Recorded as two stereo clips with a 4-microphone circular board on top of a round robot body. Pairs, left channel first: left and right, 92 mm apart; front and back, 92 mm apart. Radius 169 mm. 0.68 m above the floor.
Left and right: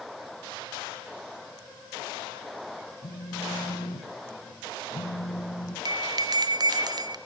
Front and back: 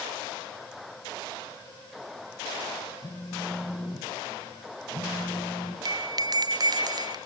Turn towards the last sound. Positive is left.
turn(degrees=-135)